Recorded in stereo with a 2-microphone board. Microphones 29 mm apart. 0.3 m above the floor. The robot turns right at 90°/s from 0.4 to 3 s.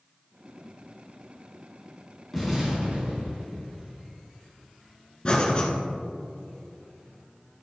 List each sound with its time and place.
2.3 s an explosion: 170° right, 2.5 m; by 3.5 s 110° right, 2.5 m
5.2 s breathing: 30° left (ahead or behind), 1.8 m